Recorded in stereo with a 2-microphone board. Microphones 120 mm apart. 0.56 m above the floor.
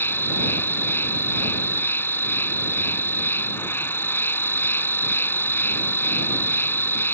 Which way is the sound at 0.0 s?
20° left (ahead or behind).